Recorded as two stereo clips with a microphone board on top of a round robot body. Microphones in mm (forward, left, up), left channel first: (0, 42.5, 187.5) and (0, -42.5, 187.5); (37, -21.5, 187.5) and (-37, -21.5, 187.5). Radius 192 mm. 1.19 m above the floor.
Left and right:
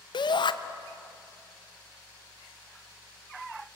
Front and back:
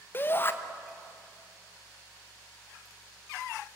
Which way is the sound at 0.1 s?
65° left.